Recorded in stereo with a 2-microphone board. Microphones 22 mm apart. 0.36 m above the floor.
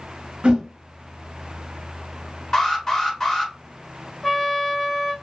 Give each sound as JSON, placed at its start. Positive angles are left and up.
{"t": 0.4, "sound": "a whoosh", "side_deg": -60, "distance_m": 0.6}
{"t": 2.5, "sound": "an alarm", "side_deg": 20, "distance_m": 1.3}
{"t": 4.2, "sound": "a trumpet", "side_deg": 10, "distance_m": 0.8}